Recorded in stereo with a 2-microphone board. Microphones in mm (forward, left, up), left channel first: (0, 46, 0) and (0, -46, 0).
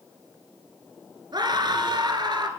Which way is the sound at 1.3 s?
50° right (ahead or behind).